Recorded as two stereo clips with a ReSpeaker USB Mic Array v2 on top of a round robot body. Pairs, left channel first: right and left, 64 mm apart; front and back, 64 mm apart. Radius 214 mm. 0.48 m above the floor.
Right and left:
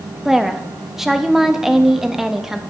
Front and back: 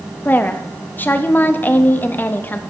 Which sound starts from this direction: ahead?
A woman speaking, at 0.2 s.